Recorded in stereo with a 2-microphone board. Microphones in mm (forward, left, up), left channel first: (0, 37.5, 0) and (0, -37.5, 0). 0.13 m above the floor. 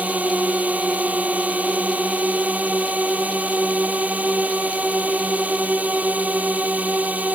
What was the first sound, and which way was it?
A drone, 20° right (ahead or behind).